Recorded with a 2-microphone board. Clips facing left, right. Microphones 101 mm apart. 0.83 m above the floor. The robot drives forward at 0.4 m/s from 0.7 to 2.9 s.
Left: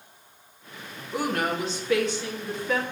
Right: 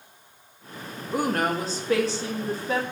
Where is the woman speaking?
50° right (ahead or behind), 1.0 m; by 2.8 s 30° right (ahead or behind), 1.4 m.